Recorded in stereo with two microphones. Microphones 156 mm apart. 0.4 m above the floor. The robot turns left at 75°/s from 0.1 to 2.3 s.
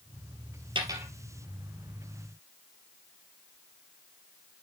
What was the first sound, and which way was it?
A dropped coin, 35° right (ahead or behind).